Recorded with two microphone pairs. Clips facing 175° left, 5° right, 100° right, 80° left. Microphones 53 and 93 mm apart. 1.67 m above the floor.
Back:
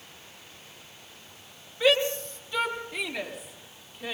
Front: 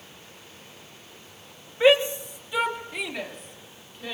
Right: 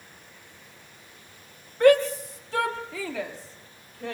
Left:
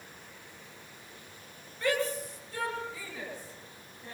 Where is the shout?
70° right, 3.5 m; by 4.2 s 105° right, 6 m.